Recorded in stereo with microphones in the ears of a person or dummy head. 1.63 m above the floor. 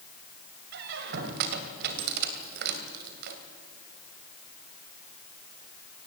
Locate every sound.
0.7 s a squeak: 60° right (ahead or behind), 2.5 m